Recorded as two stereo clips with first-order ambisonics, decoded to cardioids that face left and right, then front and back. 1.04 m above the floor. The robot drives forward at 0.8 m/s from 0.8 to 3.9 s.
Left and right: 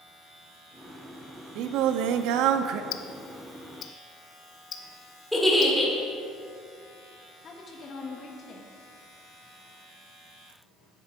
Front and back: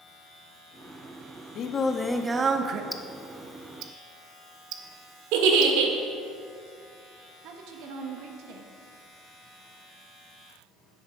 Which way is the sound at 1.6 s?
50° right.